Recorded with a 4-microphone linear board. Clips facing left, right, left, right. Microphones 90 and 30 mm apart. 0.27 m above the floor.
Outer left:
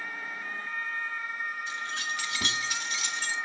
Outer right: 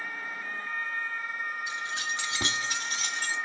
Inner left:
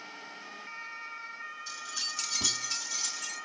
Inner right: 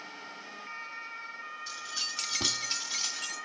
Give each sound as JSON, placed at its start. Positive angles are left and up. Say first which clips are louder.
{"t": 1.7, "sound": "keys jangling", "louder": "outer right 1 dB, inner right 1 dB", "side_deg": -15, "distance_m": 1.2}